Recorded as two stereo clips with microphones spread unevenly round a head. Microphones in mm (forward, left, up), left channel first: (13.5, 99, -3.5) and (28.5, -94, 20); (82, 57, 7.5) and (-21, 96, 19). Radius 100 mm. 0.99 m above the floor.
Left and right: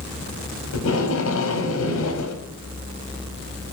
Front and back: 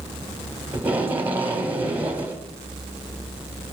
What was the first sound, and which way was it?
Tape being pulled, 85° left.